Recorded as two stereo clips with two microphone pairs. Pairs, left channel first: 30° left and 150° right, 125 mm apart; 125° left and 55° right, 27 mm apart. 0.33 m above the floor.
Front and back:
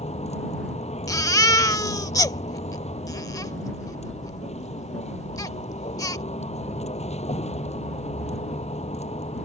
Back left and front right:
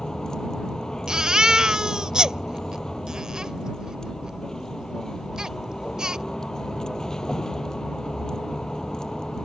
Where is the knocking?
I don't hear knocking.